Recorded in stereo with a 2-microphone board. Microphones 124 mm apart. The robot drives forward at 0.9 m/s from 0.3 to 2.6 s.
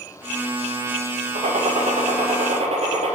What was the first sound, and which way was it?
A gunshot, 75° right (ahead or behind).